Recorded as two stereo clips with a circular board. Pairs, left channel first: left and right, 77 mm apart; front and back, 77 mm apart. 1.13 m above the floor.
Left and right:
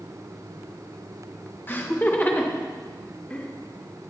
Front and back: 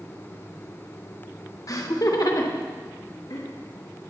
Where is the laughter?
30° left, 1.3 m; by 3.5 s 20° left, 2.5 m.